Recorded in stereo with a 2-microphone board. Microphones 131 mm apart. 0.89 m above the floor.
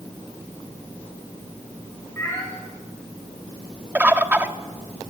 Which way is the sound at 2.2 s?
20° left (ahead or behind).